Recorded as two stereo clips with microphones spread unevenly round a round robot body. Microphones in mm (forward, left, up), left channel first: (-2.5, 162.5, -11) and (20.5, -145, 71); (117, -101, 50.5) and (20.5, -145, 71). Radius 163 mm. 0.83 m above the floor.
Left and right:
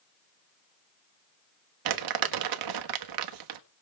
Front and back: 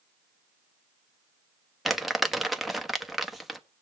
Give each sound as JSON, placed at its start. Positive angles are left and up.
{"t": 1.9, "sound": "crumpling", "azimuth_deg": -60, "distance_m": 1.3}